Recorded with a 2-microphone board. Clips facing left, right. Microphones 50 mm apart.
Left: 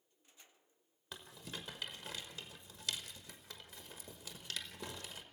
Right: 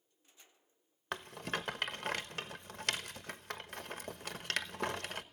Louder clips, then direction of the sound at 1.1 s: Right 10 dB; 65° right (ahead or behind).